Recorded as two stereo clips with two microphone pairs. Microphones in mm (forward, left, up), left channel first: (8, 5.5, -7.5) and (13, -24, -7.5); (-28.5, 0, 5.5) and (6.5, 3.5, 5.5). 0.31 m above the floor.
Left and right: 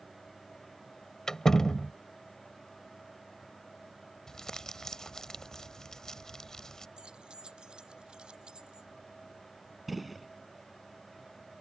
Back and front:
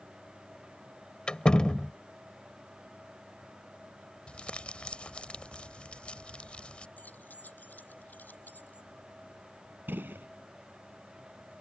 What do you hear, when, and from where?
1.3 s a door slam: 150° left
4.3 s crumpling: 155° left
7.0 s keys jangling: 135° right
9.9 s a gunshot: 5° left